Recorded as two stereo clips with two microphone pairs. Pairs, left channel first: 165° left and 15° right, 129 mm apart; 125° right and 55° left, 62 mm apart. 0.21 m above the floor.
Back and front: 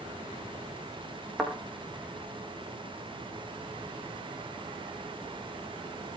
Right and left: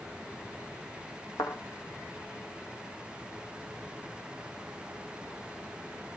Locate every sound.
1.4 s a thud: 105° right, 6 m